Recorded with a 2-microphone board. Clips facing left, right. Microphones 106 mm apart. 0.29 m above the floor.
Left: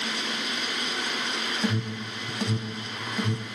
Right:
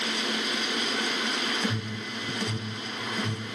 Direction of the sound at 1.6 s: 15° left (ahead or behind).